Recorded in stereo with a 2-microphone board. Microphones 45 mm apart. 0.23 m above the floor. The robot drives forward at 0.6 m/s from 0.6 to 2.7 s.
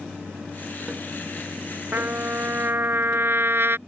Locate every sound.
1.9 s a trumpet: 50° right (ahead or behind); by 3.8 s 60° right (ahead or behind)